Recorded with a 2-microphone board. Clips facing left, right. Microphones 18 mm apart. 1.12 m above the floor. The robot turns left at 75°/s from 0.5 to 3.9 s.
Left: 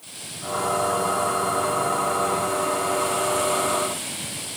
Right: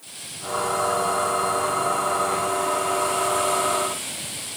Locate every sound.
Only background noise.